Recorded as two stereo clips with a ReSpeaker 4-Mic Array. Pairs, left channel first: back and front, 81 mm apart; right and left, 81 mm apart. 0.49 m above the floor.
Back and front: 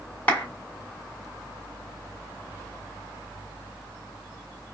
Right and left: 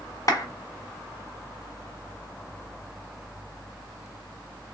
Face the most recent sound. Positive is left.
turn(degrees=-115)